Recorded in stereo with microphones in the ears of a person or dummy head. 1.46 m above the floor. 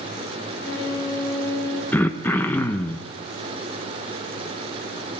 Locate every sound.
0.6 s a violin: 10° left (ahead or behind), 3 m
1.9 s throat clearing: 10° left (ahead or behind), 0.8 m